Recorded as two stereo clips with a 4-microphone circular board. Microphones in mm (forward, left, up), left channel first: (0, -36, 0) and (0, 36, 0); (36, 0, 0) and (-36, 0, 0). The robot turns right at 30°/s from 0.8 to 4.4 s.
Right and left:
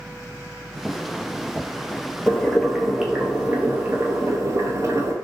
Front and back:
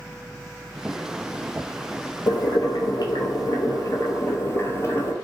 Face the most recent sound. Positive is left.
turn(degrees=50)